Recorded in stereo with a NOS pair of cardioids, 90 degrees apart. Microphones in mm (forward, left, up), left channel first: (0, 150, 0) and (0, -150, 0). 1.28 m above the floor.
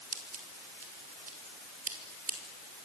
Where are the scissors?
30° right, 4.5 m.